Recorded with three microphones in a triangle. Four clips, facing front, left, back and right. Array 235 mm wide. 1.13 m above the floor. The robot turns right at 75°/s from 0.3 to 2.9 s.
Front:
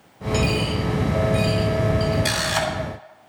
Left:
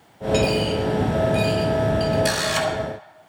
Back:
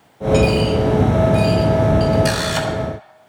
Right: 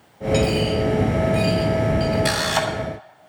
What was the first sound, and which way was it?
A dropped coin, 120° left.